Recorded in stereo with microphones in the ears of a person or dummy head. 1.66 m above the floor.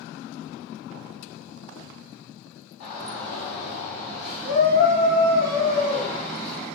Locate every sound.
2.8 s a shout: 75° left (ahead or behind), 1.2 m; by 6.7 s 40° left (ahead or behind), 2.5 m